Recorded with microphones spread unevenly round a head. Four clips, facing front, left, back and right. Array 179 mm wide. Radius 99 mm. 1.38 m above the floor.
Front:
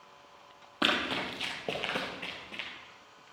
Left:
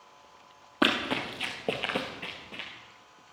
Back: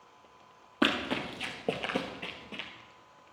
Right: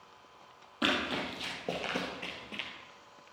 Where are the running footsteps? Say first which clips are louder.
Left 5 dB, back 2 dB; 120° left, 1.9 m; by 2.7 s 160° right, 1.4 m.